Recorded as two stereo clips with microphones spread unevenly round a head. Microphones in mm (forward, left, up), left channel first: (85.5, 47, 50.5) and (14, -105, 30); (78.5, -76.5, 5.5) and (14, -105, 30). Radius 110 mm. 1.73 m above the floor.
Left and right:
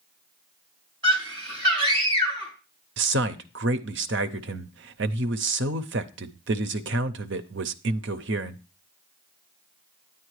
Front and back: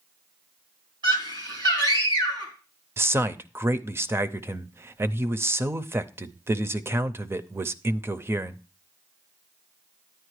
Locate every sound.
1.0 s a scream: 175° left, 3.5 m
3.0 s a man speaking: 130° right, 0.5 m